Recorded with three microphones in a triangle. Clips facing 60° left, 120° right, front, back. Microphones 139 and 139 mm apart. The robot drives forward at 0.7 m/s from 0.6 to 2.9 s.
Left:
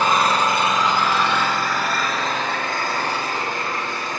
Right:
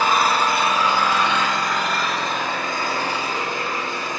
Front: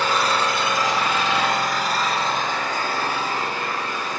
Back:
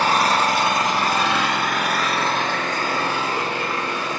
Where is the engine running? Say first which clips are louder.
Even, back 3 dB; 160° left, 1.4 m; by 4.2 s 170° left, 3 m.